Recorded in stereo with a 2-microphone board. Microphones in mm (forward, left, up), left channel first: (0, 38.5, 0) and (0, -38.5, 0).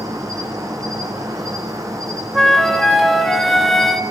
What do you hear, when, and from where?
0.0 s an insect: 45° right (ahead or behind), 1.8 m
2.3 s a flute: centre (ahead or behind), 0.7 m